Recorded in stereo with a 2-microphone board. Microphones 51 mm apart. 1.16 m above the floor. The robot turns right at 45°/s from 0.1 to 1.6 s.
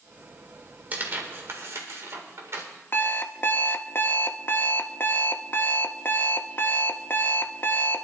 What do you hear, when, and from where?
0.9 s tearing paper: 35° right (ahead or behind), 2 m; by 2.6 s 65° right (ahead or behind), 2 m
2.9 s an alarm clock: 40° left (ahead or behind), 0.6 m